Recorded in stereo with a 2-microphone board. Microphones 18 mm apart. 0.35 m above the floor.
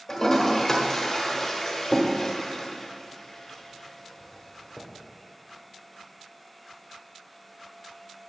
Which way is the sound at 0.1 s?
25° left (ahead or behind).